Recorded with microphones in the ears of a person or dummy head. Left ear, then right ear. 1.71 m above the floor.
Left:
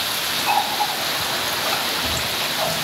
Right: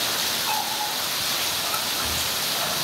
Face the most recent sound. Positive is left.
turn(degrees=35)  # may be behind; listen again after turning